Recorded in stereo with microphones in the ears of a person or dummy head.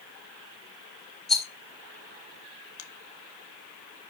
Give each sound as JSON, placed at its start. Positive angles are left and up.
{"t": 1.3, "sound": "a rattle", "side_deg": 0, "distance_m": 1.3}
{"t": 2.8, "sound": "a finger snap", "side_deg": 80, "distance_m": 1.7}